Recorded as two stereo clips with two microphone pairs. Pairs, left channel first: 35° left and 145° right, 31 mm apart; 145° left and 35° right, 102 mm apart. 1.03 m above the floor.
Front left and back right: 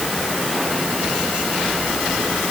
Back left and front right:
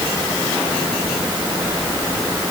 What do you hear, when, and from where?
Only background noise.